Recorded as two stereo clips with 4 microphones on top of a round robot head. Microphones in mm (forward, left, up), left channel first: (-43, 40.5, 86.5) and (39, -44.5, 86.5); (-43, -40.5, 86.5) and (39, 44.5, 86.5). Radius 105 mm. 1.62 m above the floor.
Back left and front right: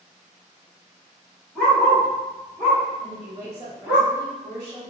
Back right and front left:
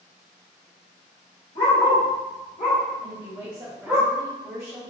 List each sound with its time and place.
1.6 s a dog barking: 145° right, 1.6 m; by 4.0 s 25° right, 1.0 m
3.0 s a woman speaking: 10° left, 1.0 m